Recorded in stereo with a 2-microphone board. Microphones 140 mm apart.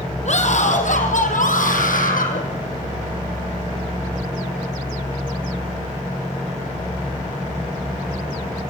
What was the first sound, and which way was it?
A scream, 55° left (ahead or behind).